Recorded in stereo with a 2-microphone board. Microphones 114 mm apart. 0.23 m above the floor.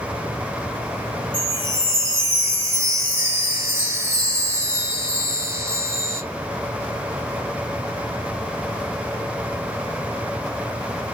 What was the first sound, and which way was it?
A chime, 20° right (ahead or behind).